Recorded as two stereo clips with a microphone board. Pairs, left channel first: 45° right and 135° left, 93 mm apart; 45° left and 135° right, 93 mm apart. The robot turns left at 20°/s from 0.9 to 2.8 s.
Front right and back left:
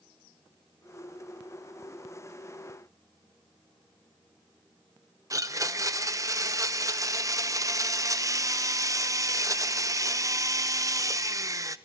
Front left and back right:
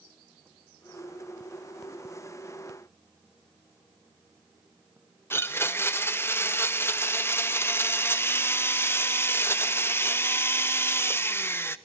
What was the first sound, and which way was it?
A blender, 100° left.